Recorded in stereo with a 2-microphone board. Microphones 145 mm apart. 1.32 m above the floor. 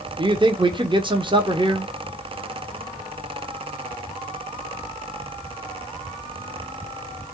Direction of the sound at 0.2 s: 30° right (ahead or behind).